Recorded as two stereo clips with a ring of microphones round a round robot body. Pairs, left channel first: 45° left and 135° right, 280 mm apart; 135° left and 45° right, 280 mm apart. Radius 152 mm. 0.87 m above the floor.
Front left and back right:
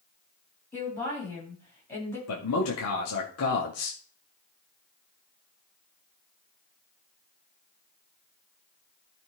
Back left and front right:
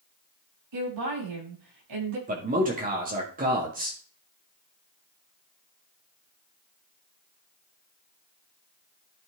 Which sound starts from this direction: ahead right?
A woman speaking, at 0.7 s.